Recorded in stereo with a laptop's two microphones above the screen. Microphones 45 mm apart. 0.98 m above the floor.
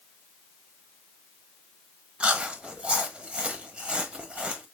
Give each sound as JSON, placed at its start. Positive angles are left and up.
{"t": 2.2, "sound": "chewing", "side_deg": -25, "distance_m": 0.8}